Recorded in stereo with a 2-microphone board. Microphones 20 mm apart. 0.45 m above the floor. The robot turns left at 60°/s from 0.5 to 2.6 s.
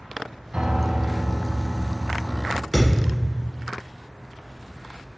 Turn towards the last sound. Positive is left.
turn(degrees=55)  # may be behind; listen again after turning